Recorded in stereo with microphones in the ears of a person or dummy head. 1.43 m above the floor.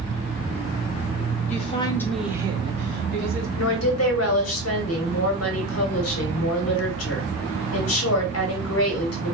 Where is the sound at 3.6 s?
70° left (ahead or behind), 1.0 m.